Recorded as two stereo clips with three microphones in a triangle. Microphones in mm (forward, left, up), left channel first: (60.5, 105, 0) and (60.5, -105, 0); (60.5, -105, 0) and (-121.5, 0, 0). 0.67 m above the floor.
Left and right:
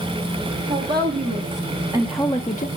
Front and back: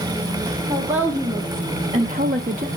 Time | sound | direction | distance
0.7 | a woman speaking | 125° right | 2 m